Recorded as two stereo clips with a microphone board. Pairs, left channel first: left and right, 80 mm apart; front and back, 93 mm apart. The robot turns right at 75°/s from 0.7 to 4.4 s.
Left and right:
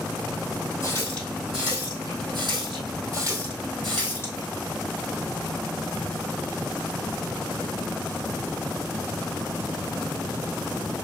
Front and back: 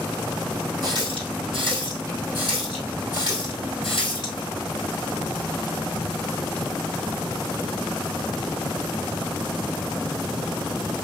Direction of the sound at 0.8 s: 135° left.